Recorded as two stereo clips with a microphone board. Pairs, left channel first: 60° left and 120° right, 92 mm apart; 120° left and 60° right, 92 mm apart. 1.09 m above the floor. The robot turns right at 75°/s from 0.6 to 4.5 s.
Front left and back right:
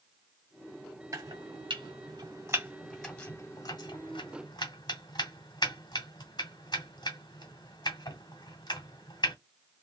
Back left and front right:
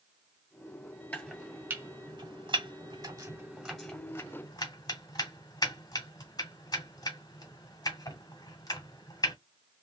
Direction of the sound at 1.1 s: 170° right.